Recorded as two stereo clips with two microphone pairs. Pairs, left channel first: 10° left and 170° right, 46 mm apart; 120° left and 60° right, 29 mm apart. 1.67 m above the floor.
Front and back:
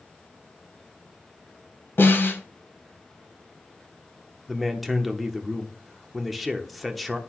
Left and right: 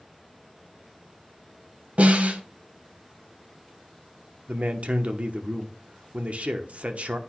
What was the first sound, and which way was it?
A snare drum, 25° right.